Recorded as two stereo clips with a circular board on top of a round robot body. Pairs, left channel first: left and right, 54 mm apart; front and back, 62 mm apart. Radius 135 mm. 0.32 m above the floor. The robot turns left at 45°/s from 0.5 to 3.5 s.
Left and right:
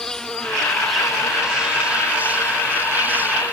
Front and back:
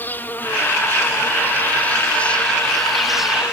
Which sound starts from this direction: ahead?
An insect, at 0.0 s.